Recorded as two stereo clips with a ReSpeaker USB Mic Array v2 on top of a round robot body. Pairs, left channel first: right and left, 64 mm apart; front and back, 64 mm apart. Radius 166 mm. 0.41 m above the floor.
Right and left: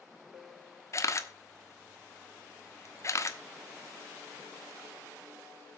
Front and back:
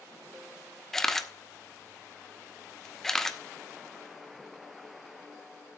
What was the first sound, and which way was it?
A camera shutter, 80° right.